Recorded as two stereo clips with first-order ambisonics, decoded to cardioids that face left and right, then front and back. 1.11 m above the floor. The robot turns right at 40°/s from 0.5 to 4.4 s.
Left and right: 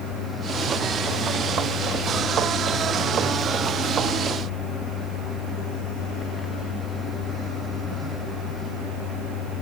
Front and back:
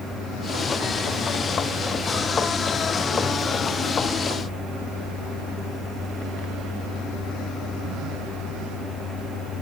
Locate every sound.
Only background noise.